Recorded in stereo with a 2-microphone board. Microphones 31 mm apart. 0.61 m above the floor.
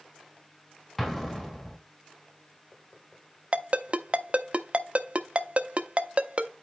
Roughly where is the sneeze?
I don't hear a sneeze.